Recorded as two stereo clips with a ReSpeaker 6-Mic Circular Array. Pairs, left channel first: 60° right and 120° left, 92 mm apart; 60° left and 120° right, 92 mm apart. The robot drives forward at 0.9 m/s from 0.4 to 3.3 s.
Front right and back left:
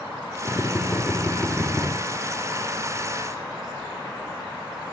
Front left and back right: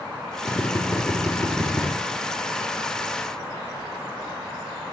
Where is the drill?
10° left, 3 m; by 1.9 s 20° left, 2.0 m.